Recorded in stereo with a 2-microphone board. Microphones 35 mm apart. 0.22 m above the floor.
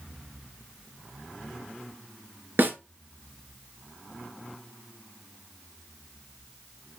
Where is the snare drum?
65° right (ahead or behind), 1.8 m.